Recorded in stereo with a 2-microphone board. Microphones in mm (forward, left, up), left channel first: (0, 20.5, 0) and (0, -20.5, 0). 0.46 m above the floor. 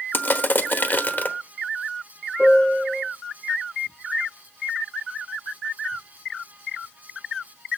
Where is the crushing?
50° left (ahead or behind), 1.0 m.